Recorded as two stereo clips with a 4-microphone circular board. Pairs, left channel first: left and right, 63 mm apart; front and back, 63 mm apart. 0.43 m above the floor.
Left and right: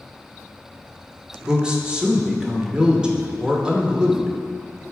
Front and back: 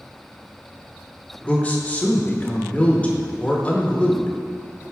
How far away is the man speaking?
About 1.0 m.